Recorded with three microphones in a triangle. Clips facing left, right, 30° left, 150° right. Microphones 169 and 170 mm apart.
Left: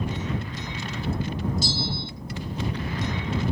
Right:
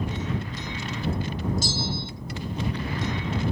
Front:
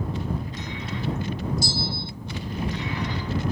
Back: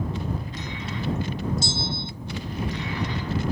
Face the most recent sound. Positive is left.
turn(degrees=-95)